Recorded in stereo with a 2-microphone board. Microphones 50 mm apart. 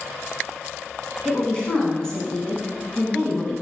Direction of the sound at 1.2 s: 15° left (ahead or behind).